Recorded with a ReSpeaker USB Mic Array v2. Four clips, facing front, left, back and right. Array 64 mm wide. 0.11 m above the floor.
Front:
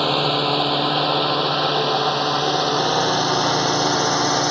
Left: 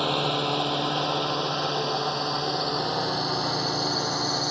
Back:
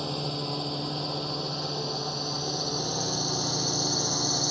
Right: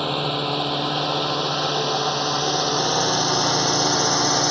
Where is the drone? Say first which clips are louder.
Right 1 dB, front 13 dB; straight ahead; by 4.5 s 30° right.